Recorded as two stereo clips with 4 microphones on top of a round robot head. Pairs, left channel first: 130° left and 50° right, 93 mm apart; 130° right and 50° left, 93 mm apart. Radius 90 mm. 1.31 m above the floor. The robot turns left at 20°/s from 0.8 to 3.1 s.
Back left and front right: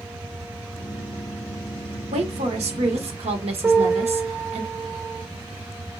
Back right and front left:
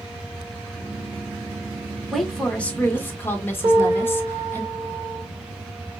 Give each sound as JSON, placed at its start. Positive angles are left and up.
{"t": 2.1, "sound": "a woman speaking", "azimuth_deg": -40, "distance_m": 1.1}
{"t": 3.6, "sound": "a piano", "azimuth_deg": 5, "distance_m": 3.0}